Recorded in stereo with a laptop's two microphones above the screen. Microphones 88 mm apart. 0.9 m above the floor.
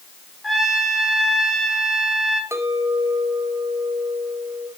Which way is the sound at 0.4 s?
Centre (ahead or behind).